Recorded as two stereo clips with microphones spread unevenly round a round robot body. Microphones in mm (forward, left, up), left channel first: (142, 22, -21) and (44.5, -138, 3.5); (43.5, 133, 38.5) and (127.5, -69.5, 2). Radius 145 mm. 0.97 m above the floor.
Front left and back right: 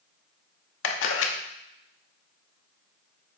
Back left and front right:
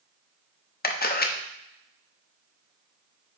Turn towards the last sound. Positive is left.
turn(degrees=60)